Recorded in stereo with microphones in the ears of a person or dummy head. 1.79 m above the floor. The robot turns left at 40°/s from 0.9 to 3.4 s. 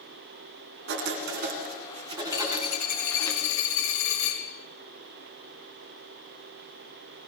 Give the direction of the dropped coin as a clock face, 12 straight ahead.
7 o'clock.